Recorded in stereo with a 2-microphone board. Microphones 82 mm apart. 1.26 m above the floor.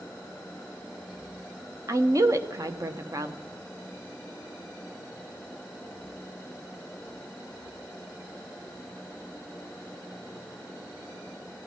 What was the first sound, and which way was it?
A woman speaking, 40° right (ahead or behind).